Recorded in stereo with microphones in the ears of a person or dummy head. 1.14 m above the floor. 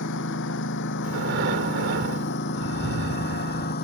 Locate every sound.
0.0 s a lawn mower: 65° left (ahead or behind); by 3.8 s 50° left (ahead or behind)
1.0 s breathing: 60° right (ahead or behind)